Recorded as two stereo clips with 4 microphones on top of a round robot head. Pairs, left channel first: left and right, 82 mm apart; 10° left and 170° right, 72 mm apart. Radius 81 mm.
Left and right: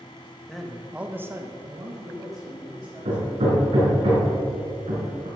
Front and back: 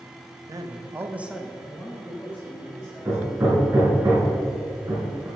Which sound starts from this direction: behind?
A man speaking, at 0.5 s.